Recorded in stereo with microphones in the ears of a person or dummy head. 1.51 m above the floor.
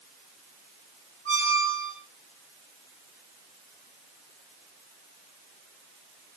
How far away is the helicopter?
No helicopter in this recording.